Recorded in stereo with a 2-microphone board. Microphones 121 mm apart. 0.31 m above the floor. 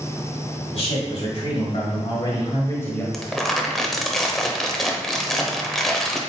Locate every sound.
0.7 s a man speaking: 55° left (ahead or behind), 2.0 m; by 3.0 s 15° left (ahead or behind), 1.3 m
3.1 s crumpling: centre (ahead or behind), 0.6 m